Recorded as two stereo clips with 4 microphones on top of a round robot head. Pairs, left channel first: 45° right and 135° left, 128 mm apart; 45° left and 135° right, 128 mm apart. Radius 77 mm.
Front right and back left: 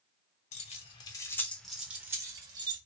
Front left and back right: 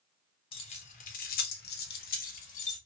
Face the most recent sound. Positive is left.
turn(degrees=80)